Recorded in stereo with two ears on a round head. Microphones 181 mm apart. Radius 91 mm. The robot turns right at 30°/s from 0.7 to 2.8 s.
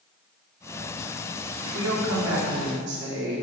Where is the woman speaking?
95° right, 1.6 m; by 3.4 s 60° right, 1.6 m.